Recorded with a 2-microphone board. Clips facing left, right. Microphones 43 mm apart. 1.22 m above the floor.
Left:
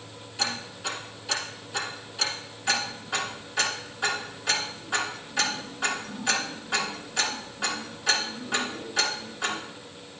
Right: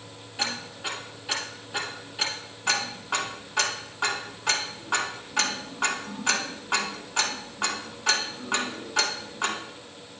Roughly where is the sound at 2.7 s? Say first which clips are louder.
Right 1 dB; right.